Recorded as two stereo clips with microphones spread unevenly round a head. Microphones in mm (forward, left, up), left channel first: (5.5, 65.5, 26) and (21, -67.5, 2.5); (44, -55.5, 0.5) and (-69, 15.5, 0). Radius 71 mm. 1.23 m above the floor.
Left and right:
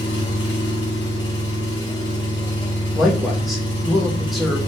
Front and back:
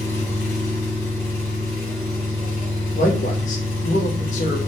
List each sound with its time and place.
0.0 s an engine running: 40° left, 2.5 m
3.0 s a man speaking: straight ahead, 1.3 m